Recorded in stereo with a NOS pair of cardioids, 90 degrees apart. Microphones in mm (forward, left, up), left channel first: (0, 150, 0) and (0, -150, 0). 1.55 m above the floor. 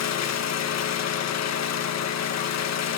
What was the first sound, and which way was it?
An engine running, 60° left.